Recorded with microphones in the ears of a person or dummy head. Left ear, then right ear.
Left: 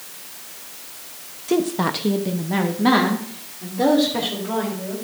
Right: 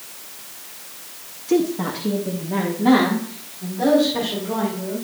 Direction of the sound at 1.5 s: 20° left (ahead or behind).